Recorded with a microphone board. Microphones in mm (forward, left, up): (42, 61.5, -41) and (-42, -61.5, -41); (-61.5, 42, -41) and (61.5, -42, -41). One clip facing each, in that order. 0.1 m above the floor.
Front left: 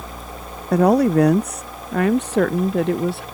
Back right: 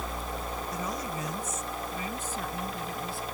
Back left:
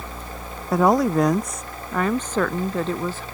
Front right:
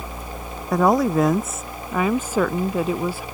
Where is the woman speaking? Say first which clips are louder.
Front left 25 dB, even; 55° left; by 3.2 s 45° left.